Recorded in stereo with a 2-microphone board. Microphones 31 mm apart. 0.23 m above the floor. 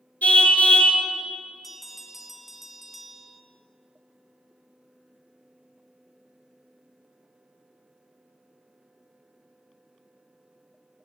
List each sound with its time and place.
0.2 s a car horn: 50° left (ahead or behind), 2.5 m
1.6 s a bell: centre (ahead or behind), 1.5 m